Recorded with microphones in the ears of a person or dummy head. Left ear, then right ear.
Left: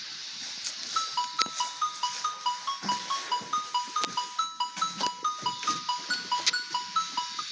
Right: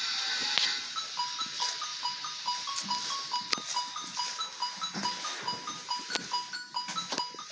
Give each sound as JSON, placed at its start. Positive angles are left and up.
{"t": 0.9, "sound": "a ringtone", "side_deg": 30, "distance_m": 2.5}